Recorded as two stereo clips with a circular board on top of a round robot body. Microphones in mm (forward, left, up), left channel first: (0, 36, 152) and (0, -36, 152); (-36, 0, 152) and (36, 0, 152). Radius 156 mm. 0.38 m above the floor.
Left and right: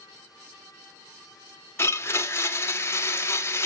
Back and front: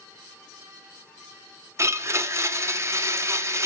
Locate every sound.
1.8 s a blender: 45° left, 1.2 m